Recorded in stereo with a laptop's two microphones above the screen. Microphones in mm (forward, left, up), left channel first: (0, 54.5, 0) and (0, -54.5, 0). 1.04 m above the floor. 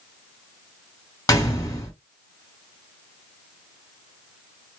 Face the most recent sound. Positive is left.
turn(degrees=35)  # may be behind; listen again after turning